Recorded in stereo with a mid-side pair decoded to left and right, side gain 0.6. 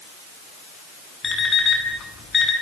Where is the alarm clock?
30° left, 8 m.